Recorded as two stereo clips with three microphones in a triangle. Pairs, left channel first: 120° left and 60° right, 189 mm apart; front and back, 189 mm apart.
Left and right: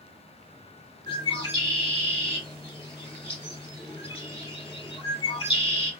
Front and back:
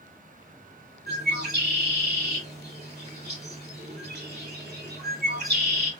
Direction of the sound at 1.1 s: Straight behind.